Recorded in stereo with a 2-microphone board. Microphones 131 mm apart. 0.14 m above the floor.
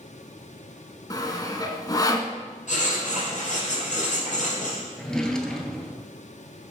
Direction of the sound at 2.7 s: 65° left (ahead or behind).